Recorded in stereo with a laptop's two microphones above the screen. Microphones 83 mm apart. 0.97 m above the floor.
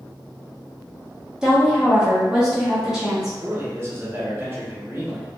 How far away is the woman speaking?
About 0.8 m.